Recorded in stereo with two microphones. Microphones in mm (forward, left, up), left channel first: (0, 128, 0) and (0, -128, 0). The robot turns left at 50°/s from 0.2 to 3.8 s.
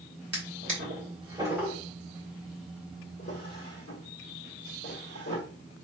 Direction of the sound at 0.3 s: 70° right (ahead or behind).